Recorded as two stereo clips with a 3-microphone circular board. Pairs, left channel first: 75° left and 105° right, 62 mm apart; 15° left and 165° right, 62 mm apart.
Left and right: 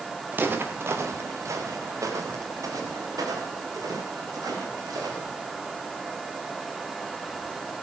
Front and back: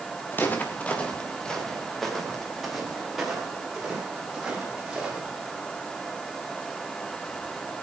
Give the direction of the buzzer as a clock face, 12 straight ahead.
No buzzer in this recording.